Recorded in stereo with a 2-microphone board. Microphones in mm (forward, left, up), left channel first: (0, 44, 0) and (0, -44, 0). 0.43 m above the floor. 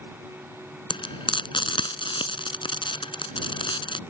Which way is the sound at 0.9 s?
60° left (ahead or behind).